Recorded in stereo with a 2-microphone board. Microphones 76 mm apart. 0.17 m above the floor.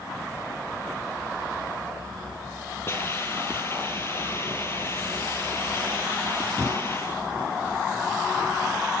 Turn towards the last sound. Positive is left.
turn(degrees=35)  # may be behind; listen again after turning